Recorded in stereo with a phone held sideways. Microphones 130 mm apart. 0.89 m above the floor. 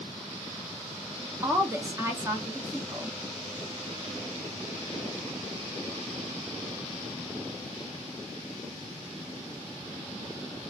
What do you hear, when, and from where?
1.4 s a woman speaking: 20° right (ahead or behind), 0.7 m